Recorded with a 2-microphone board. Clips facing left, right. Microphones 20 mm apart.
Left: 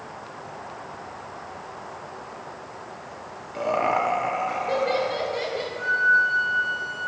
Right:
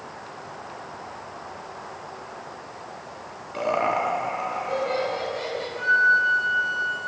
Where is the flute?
20° right (ahead or behind), 0.9 m.